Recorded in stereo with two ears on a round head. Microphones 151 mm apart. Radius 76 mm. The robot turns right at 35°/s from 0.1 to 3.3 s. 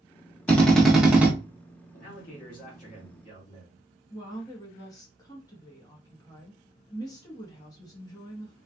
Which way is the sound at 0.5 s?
10° left (ahead or behind).